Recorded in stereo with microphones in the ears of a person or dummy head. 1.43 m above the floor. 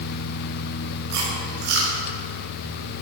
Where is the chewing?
60° right (ahead or behind), 3.5 m.